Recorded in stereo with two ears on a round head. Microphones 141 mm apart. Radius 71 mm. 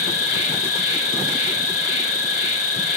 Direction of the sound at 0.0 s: 45° left (ahead or behind).